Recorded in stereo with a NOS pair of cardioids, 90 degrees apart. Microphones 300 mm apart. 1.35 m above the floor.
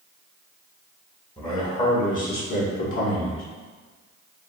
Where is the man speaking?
15° left, 1.6 m; by 3.4 s 65° left, 1.1 m.